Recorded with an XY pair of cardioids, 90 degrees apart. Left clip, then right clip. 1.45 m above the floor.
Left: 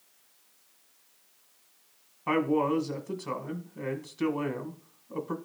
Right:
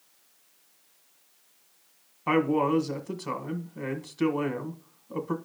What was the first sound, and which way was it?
A man speaking, 25° right.